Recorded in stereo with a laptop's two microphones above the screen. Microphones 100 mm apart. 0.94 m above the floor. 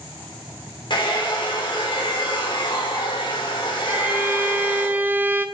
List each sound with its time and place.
0.9 s a hair dryer: 50° left (ahead or behind), 2.5 m
3.9 s a violin: 20° right (ahead or behind), 0.8 m